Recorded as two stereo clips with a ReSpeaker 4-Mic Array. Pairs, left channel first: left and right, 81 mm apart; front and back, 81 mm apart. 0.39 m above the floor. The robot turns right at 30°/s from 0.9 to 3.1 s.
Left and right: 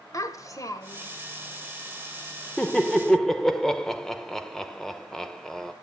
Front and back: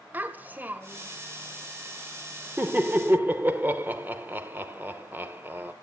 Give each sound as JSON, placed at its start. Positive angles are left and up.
{"t": 0.1, "sound": "a child speaking", "azimuth_deg": 120, "distance_m": 1.2}
{"t": 2.6, "sound": "laughter", "azimuth_deg": 150, "distance_m": 0.9}